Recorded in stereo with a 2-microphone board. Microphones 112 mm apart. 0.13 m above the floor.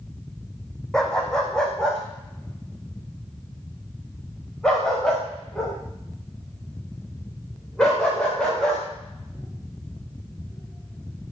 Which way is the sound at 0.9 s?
5° left (ahead or behind).